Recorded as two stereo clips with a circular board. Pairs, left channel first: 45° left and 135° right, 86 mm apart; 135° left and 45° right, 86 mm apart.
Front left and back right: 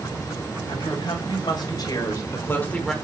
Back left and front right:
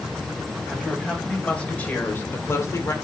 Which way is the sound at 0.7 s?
50° left.